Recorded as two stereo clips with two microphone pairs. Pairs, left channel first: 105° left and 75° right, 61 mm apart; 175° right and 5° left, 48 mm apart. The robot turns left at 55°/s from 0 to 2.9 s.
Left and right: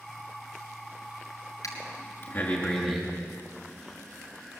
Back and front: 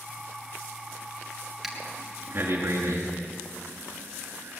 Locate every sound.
1.6 s breathing: 95° left, 5 m; by 4.6 s 25° left, 5 m